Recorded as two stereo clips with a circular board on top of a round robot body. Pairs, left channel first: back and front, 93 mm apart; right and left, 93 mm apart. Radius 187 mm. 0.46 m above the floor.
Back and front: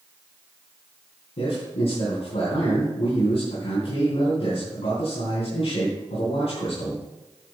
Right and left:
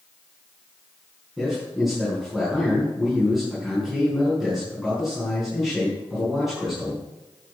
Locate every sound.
1.4 s a man speaking: straight behind, 5 m